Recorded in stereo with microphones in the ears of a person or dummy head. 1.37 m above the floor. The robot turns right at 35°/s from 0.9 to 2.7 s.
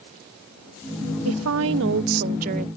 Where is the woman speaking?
90° right; by 2.7 s 40° right.